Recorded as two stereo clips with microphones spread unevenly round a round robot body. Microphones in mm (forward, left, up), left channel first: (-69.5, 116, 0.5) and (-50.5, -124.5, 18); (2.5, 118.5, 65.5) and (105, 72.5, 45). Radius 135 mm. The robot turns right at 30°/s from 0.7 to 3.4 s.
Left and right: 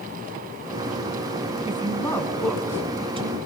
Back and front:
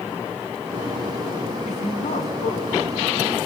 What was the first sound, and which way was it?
A woman speaking, 160° left.